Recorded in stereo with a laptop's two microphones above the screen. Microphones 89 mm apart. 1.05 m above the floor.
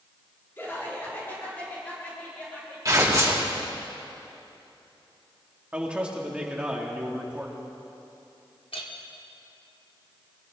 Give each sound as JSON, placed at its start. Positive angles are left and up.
{"t": 0.6, "sound": "laughter", "side_deg": 25, "distance_m": 3.0}
{"t": 2.9, "sound": "tearing paper", "side_deg": -35, "distance_m": 2.5}
{"t": 5.7, "sound": "a man speaking", "side_deg": -10, "distance_m": 2.5}
{"t": 8.7, "sound": "a clink", "side_deg": 80, "distance_m": 1.6}